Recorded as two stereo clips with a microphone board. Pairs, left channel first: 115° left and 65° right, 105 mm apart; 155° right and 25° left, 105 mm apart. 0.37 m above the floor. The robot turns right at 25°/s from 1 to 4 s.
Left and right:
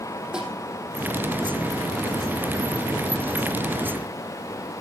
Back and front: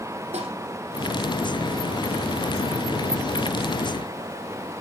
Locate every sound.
0.3 s a snare drum: 15° left, 3.5 m